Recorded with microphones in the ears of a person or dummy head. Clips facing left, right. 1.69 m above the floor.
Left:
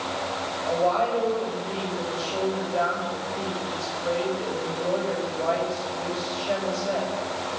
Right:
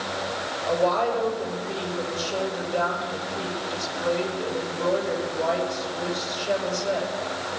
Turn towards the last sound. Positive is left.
turn(degrees=-45)  # may be behind; listen again after turning